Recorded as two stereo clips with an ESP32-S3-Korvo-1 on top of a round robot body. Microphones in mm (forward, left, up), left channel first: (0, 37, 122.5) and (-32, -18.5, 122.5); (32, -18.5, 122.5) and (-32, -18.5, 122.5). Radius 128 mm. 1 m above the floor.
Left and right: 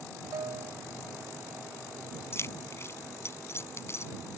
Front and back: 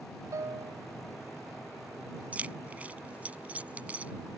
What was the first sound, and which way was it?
A piano, 145° right.